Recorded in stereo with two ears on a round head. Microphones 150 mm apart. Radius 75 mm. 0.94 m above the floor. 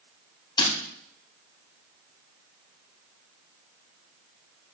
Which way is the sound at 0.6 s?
30° left (ahead or behind).